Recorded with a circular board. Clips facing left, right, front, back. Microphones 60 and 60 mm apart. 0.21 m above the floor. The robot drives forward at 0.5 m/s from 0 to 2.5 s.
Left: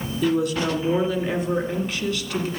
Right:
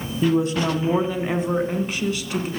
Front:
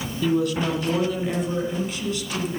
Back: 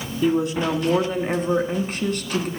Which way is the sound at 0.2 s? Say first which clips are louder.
Right 2 dB, back 2 dB; 120° right.